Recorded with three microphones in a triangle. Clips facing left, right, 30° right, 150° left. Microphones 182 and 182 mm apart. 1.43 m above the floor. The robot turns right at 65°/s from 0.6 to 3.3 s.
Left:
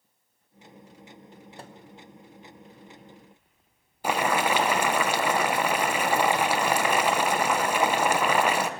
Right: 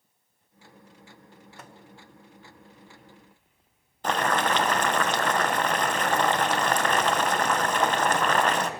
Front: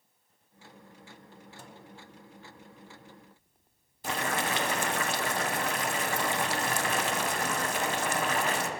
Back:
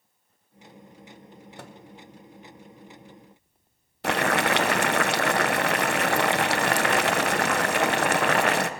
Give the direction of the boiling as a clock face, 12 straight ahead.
6 o'clock.